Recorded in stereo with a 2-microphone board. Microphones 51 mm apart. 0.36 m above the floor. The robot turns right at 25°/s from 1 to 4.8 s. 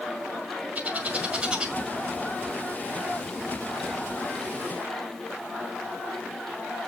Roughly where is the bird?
Right.